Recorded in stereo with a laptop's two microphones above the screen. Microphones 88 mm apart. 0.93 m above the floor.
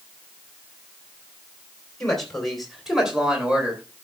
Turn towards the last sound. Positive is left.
turn(degrees=-15)  # may be behind; listen again after turning